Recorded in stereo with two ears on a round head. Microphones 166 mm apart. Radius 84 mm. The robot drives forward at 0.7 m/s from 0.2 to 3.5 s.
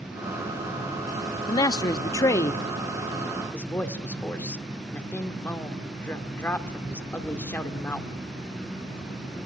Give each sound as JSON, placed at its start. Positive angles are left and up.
{"t": 1.5, "sound": "a man speaking", "side_deg": 20, "distance_m": 0.9}